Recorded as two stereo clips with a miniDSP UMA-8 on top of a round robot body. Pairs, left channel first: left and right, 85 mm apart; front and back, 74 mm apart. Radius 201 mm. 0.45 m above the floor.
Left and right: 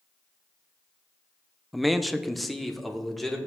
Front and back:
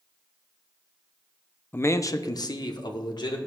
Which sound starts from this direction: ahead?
A man speaking, at 1.7 s.